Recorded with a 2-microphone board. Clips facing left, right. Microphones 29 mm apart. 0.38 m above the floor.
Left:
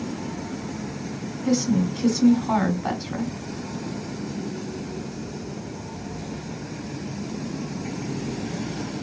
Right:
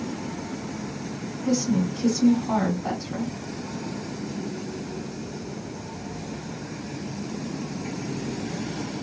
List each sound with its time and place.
1.4 s a woman speaking: 50° left (ahead or behind), 2 m